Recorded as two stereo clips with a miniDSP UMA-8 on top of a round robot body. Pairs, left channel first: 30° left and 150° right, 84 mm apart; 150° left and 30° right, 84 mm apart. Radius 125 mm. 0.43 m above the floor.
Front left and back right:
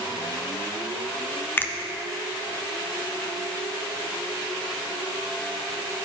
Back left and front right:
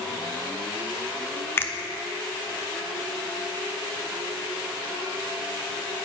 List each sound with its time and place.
1.6 s a finger snap: 90° left, 0.7 m